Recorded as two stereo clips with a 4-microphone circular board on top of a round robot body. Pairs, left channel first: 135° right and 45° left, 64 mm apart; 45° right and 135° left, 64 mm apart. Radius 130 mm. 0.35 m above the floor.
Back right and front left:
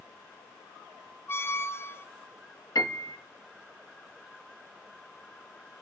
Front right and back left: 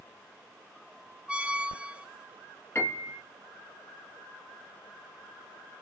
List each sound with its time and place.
1.3 s a squeak: 160° right, 0.6 m
2.8 s a piano: 100° right, 1.7 m